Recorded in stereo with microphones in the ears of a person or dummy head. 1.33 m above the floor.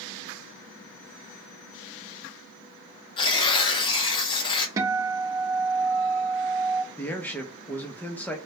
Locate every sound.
3.2 s tearing paper: 25° left (ahead or behind), 0.7 m
4.8 s a guitar: 20° right (ahead or behind), 0.5 m
7.0 s a man speaking: 5° left (ahead or behind), 0.6 m